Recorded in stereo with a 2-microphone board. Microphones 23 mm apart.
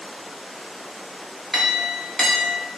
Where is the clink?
10° left (ahead or behind), 0.8 m.